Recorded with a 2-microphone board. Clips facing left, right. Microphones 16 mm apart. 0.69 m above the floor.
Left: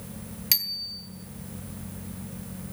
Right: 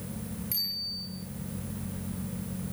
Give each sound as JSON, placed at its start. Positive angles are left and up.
{"t": 0.5, "sound": "a bicycle bell", "side_deg": 70, "distance_m": 2.5}